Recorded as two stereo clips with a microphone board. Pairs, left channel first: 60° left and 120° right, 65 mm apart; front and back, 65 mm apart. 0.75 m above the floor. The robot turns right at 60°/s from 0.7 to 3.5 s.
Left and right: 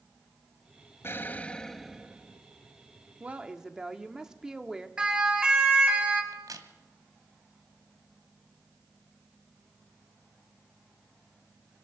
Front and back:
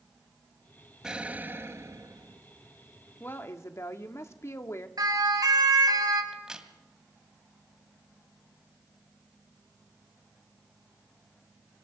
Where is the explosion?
100° left, 0.9 m; by 2.4 s 175° right, 0.9 m.